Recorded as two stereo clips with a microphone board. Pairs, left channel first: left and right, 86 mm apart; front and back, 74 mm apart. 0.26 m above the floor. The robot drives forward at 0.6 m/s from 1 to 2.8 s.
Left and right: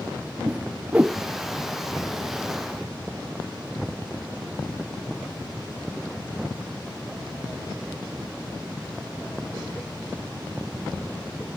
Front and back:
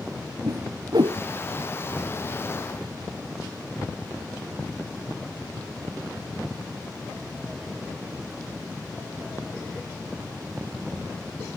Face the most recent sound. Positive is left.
turn(degrees=-165)